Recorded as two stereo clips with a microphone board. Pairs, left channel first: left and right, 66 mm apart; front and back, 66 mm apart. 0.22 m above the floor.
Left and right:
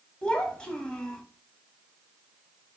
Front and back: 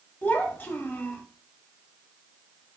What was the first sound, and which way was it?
A child speaking, 25° left.